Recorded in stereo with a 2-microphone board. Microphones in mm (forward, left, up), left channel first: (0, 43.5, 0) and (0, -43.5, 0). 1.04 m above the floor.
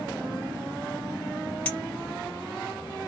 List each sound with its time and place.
1.6 s a clink: 15° left (ahead or behind), 1.1 m